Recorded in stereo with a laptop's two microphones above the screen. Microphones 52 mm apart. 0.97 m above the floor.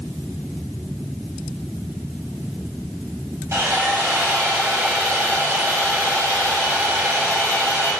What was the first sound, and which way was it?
Sawing, 85° right.